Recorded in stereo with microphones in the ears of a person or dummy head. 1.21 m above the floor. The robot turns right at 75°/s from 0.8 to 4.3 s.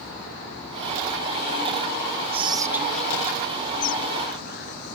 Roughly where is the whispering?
Right.